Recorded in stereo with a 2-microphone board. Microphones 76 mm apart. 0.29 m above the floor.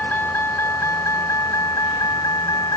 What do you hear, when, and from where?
0.0 s a vehicle: 25° left (ahead or behind); by 2.8 s 55° left (ahead or behind)